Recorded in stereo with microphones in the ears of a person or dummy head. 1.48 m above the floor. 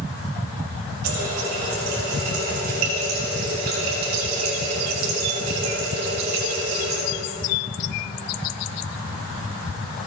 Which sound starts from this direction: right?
A running tap, at 1.0 s.